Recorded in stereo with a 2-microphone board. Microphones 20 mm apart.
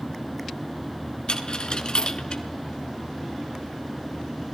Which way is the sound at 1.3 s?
50° left (ahead or behind).